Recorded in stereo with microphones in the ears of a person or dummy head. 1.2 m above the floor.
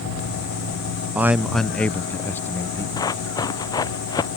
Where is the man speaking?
5° right (ahead or behind); by 2.9 s 15° left (ahead or behind).